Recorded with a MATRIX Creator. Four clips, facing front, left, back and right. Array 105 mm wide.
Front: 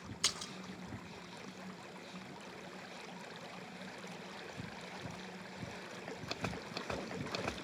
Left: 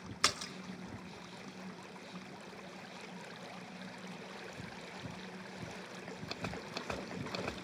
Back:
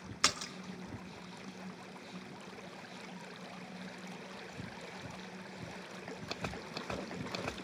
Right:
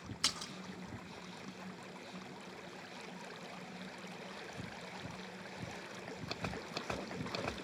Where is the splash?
150° left, 1.2 m.